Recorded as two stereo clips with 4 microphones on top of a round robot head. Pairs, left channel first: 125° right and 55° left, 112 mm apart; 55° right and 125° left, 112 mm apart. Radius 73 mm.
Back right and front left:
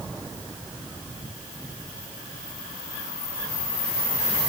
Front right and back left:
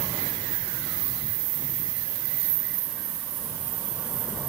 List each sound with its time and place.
Only background noise.